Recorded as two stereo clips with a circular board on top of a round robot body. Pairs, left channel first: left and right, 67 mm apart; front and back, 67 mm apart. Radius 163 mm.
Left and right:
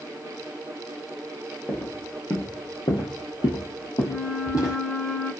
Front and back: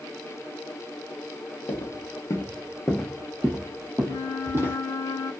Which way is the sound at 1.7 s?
20° left.